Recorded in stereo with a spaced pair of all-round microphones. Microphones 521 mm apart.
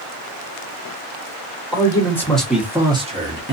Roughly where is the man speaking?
Centre.